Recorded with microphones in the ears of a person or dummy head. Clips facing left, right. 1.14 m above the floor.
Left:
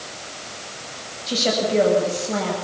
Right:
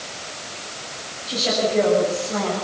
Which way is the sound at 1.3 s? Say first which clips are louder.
Left 1 dB; 50° left (ahead or behind).